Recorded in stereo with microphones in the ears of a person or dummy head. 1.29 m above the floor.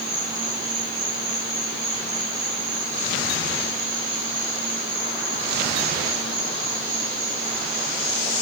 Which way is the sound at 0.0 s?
5° right (ahead or behind).